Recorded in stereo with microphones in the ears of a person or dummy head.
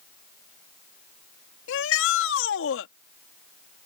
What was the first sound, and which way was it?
A shout, 80° left.